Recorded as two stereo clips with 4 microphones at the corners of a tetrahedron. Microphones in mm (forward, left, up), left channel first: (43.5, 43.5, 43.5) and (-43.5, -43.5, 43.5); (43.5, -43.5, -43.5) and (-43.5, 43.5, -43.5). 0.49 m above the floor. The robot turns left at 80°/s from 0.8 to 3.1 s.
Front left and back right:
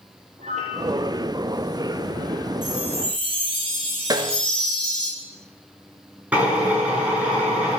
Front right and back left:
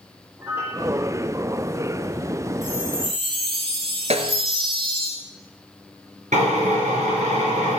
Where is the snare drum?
170° left, 1.8 m.